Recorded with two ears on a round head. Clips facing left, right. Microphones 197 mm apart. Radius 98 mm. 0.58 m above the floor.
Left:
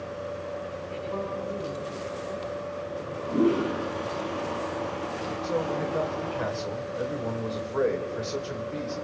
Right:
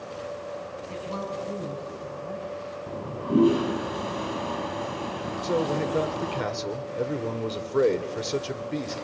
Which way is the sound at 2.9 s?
65° right (ahead or behind).